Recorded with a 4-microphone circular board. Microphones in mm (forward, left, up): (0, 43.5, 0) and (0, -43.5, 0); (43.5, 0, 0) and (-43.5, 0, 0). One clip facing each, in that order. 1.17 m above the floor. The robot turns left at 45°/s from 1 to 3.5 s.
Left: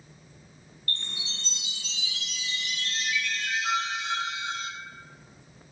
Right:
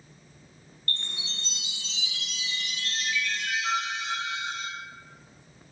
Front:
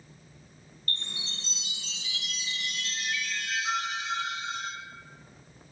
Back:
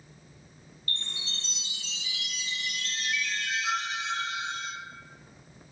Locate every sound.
0.9 s a chime: 50° right, 1.3 m; by 4.7 s 165° right, 1.3 m